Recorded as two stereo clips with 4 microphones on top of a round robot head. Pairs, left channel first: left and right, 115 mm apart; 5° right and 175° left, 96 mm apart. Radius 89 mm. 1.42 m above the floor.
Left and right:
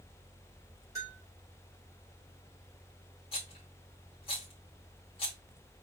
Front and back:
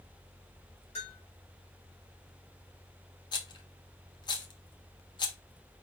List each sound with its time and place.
0.9 s a bell: 20° right, 3.5 m
3.3 s a rattle: 35° left, 0.9 m